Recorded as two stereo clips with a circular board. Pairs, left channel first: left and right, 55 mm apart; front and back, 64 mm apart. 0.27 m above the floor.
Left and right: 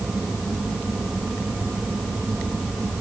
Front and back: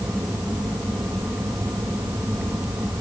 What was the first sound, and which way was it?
Only background noise.